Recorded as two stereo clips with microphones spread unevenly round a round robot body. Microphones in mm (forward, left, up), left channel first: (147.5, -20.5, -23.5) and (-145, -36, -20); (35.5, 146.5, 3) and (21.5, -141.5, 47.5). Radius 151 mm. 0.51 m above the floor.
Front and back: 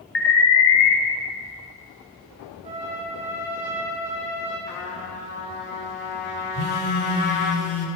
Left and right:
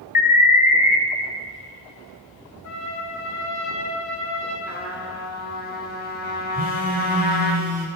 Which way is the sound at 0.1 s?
40° left.